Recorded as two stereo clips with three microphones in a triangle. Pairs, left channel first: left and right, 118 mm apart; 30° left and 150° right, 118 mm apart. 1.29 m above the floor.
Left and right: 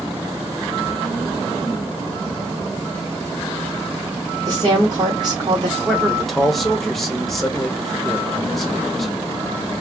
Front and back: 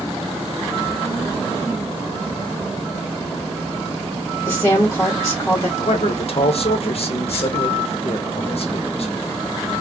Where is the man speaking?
Straight ahead, 1.0 m.